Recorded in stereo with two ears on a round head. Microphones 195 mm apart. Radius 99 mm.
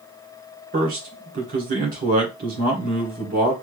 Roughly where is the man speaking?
Right.